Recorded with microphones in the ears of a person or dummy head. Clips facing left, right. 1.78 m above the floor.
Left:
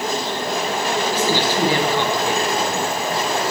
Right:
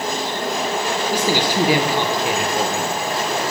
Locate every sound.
1.1 s a man speaking: 15° right (ahead or behind), 1.7 m